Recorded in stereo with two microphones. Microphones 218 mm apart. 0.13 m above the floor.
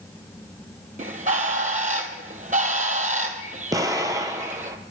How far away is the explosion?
About 0.5 m.